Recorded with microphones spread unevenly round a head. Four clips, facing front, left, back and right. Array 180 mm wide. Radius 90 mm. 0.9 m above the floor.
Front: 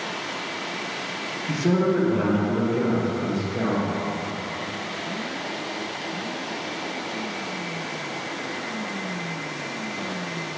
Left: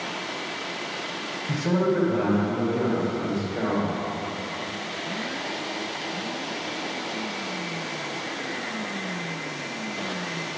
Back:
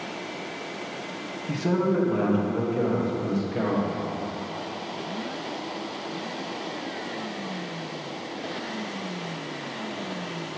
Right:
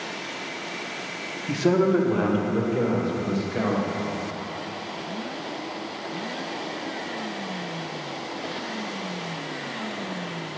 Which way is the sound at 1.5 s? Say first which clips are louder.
Right 3 dB, front 3 dB; 75° right.